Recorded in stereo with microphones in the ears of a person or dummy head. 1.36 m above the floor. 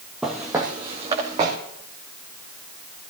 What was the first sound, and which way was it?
Footsteps, centre (ahead or behind).